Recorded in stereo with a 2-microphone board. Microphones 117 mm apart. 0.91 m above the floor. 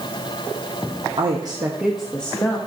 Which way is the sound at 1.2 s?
55° right (ahead or behind).